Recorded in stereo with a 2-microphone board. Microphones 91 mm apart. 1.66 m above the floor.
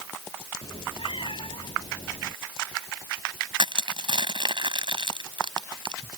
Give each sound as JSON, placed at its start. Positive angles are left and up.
{"t": 0.6, "sound": "a cat meowing", "side_deg": 80}
{"t": 3.6, "sound": "crushing", "side_deg": -65}